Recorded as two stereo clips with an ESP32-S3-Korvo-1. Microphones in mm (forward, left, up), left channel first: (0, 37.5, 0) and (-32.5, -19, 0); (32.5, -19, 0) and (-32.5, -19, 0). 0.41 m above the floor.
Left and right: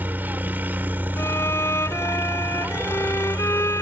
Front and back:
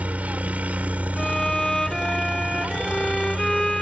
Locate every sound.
0.0 s a helicopter: 140° right
1.2 s a violin: 80° left